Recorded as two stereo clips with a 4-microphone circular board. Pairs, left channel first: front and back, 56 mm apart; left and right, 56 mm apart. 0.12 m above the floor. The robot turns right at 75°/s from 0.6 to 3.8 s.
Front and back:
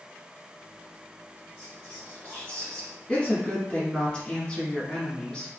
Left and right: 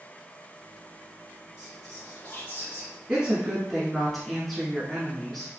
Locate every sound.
1.6 s whispering: 20° right, 1.8 m; by 3.0 s 85° left, 1.8 m
3.1 s a woman speaking: 50° right, 1.3 m; by 5.5 s straight ahead, 1.3 m